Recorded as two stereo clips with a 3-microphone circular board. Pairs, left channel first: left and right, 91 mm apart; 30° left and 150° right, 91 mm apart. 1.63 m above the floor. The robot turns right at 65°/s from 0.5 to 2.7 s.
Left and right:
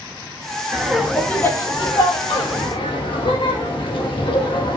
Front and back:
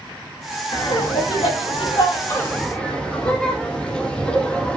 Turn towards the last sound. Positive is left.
turn(degrees=110)